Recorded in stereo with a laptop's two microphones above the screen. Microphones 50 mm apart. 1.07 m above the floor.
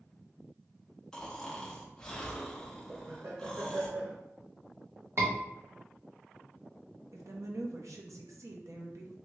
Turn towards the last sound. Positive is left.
turn(degrees=-75)  # may be behind; listen again after turning